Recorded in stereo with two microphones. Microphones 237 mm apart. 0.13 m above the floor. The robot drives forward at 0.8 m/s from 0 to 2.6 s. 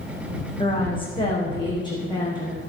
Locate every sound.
0.6 s a woman speaking: 20° left (ahead or behind), 6.5 m; by 2.6 s 15° left (ahead or behind), 8 m